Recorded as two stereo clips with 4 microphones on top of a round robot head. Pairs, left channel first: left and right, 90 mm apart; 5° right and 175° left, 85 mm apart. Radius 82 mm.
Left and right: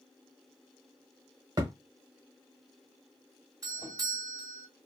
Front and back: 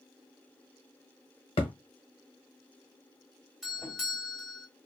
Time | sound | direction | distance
1.6 | a thud | 35° right | 1.3 m
3.6 | a doorbell | 100° right | 2.0 m